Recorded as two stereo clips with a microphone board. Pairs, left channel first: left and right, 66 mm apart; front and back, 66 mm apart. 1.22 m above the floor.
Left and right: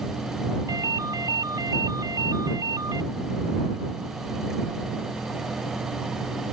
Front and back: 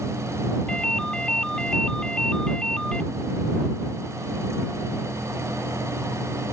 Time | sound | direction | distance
0.7 | a ringtone | 75° right | ?